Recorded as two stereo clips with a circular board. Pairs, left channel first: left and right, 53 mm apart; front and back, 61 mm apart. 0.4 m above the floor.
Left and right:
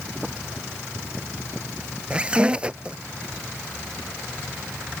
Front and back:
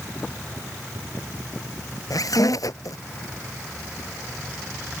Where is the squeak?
20° right.